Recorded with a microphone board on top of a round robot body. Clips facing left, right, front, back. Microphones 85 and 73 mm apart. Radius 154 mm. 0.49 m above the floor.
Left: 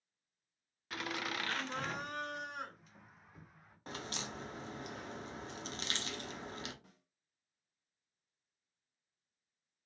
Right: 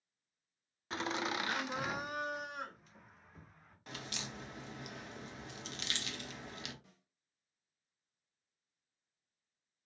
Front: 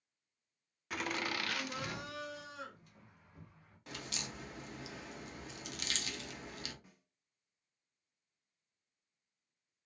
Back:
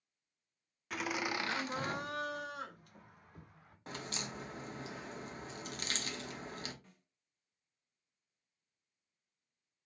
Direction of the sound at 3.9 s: 135° left.